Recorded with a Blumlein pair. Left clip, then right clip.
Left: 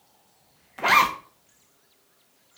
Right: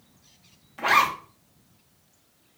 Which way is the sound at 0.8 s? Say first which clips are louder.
Left 2 dB; 10° left.